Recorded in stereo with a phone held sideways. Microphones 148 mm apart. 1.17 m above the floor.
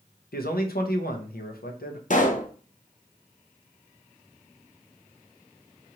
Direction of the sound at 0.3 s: 85° left.